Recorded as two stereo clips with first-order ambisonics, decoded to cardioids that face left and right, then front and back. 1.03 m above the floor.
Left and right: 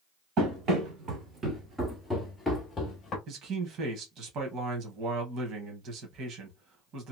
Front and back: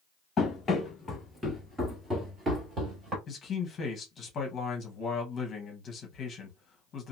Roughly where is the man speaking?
Ahead right.